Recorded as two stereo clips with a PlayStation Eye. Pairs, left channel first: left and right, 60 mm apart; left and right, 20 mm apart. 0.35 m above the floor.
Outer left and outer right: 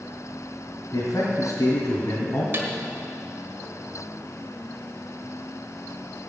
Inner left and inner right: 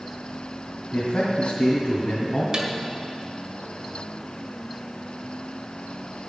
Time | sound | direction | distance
0.9 | a man speaking | 65° left (ahead or behind) | 2 m
2.5 | a snare drum | 40° right (ahead or behind) | 1.5 m